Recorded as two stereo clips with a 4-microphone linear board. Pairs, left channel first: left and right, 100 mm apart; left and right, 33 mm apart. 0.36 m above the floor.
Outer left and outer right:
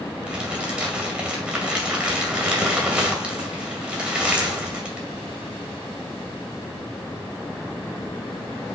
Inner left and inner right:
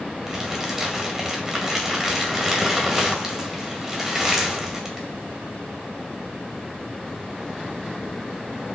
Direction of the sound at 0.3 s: 10° right (ahead or behind).